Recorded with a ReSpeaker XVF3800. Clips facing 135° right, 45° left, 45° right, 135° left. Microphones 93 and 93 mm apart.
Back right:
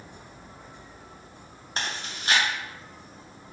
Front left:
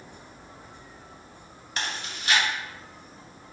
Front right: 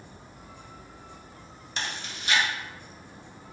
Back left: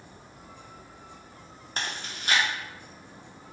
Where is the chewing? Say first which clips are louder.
Even, even; 175° left, 0.7 m.